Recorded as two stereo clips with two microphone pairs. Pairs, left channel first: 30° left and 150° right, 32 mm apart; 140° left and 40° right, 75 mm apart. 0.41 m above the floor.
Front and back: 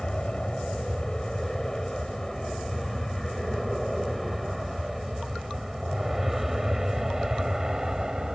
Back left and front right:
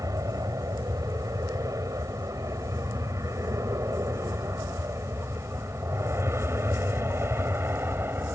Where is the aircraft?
35° right; by 8.4 s 90° right.